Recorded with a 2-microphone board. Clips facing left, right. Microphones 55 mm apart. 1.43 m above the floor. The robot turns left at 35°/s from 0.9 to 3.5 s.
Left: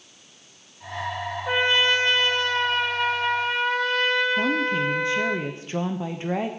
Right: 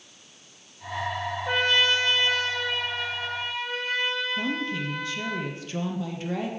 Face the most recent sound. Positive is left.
turn(degrees=30)  # may be behind; listen again after turning